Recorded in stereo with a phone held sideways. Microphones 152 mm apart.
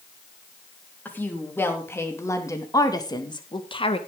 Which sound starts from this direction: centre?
A woman speaking, at 1.1 s.